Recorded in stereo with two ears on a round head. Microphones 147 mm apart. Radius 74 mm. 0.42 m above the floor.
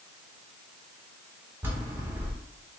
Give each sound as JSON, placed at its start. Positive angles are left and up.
{"t": 1.6, "sound": "a bell", "side_deg": -15, "distance_m": 0.8}